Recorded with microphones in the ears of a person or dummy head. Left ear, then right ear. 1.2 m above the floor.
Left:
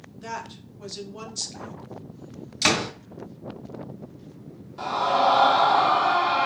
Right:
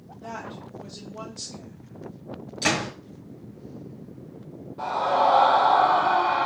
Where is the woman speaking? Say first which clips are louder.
Left 2 dB; 65° left (ahead or behind), 1.6 m.